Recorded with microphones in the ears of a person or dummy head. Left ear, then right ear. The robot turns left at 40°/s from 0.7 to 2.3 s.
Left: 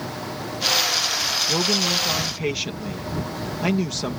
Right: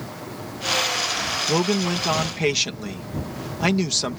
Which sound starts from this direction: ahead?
A man speaking, at 1.5 s.